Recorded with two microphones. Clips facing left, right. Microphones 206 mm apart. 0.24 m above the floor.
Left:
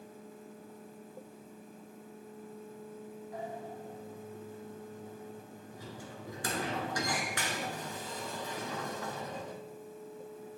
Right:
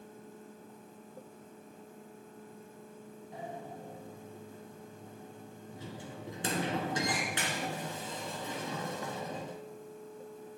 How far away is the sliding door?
About 1.4 m.